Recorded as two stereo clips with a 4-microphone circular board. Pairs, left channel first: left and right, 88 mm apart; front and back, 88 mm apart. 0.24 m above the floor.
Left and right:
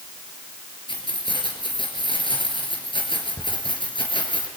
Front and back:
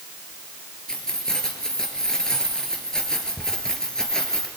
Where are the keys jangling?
80° left, 3.5 m.